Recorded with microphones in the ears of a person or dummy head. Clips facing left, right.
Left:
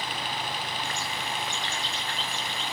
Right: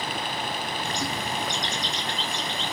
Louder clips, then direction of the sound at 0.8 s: Right 4 dB; 30° right (ahead or behind).